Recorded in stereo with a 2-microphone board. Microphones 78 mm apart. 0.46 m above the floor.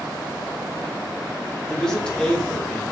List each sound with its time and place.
1.7 s a man speaking: 10° left (ahead or behind), 0.9 m